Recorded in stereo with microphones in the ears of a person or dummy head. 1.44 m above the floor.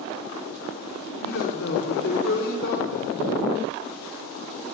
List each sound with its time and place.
1.2 s a man speaking: 60° left (ahead or behind), 4 m